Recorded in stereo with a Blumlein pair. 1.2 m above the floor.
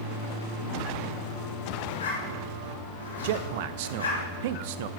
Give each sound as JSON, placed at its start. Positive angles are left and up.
{"t": 1.9, "sound": "a zipper", "azimuth_deg": 70, "distance_m": 2.5}
{"t": 3.2, "sound": "a man speaking", "azimuth_deg": -50, "distance_m": 0.6}